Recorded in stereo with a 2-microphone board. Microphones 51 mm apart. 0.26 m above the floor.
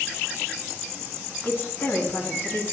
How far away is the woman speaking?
About 1.9 m.